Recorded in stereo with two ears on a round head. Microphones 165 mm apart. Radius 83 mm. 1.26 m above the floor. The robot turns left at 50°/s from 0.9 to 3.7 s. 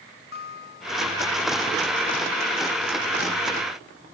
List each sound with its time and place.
0.3 s a guitar: 60° left (ahead or behind); by 1.4 s 80° left